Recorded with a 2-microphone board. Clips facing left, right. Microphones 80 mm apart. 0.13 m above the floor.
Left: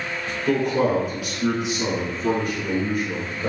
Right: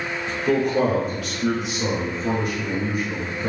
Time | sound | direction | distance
0.5 | a man speaking | 5° right (ahead or behind) | 1.2 m